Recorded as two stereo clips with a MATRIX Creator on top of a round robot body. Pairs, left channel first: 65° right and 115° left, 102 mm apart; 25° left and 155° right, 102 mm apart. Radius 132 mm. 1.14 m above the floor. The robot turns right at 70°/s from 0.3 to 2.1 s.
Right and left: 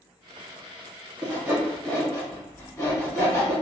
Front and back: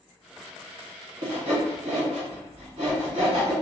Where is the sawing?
165° left, 1.1 m; by 3.5 s 130° right, 1.1 m.